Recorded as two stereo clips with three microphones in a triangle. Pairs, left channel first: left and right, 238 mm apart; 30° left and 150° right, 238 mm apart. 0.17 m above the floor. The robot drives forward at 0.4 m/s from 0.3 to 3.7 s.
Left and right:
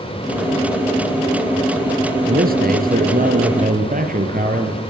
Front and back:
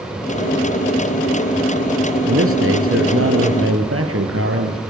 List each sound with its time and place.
2.3 s a man speaking: 140° right, 4 m; by 4.8 s 145° right, 4.5 m